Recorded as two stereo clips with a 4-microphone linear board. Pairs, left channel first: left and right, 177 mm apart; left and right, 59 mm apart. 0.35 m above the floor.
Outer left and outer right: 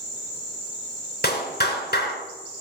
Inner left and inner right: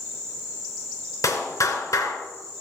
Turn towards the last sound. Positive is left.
turn(degrees=60)  # may be behind; listen again after turning